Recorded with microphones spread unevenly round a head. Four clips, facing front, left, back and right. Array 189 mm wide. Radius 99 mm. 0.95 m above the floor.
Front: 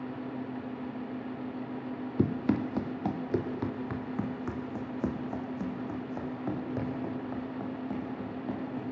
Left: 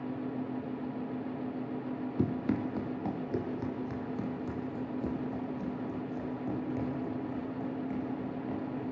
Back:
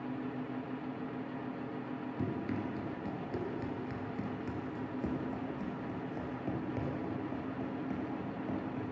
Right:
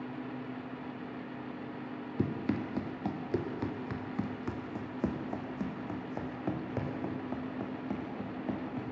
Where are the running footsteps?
15° right, 2.5 m; by 8.9 s 70° right, 7 m.